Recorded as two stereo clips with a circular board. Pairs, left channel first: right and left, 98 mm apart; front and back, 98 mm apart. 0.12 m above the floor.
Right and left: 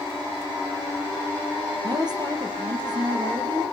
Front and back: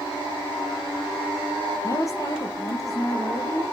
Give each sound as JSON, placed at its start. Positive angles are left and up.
{"t": 1.8, "sound": "a woman speaking", "azimuth_deg": 55, "distance_m": 4.0}